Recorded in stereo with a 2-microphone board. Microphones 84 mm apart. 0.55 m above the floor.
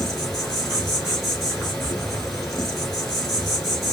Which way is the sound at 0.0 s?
Centre (ahead or behind).